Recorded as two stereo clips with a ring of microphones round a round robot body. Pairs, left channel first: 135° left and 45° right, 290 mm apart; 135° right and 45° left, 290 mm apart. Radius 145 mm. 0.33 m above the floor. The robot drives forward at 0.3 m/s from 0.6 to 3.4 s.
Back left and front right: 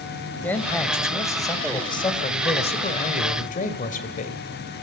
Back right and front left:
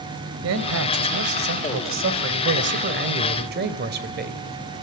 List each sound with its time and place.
0.4 s a man speaking: 55° left, 2 m; by 4.4 s 85° left, 1.9 m